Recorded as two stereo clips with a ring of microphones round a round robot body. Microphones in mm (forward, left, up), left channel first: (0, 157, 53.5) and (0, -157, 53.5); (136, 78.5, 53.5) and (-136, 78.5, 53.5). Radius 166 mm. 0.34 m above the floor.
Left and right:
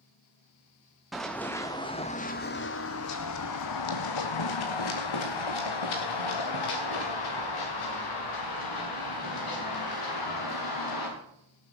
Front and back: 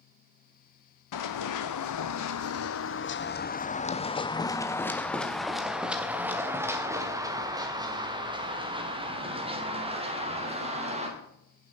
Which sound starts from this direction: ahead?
Running footsteps, at 1.1 s.